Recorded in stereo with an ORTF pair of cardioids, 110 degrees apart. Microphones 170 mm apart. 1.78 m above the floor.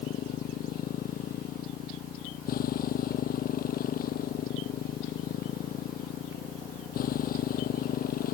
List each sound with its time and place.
0.0 s a motorcycle: 60° left